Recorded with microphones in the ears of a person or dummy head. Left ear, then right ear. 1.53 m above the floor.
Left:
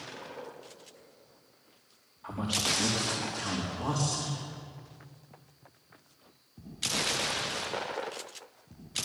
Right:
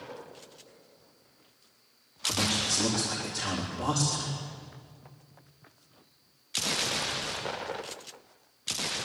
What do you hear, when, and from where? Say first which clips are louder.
2.2 s a man speaking: right 3 dB; 10° right (ahead or behind), 4 m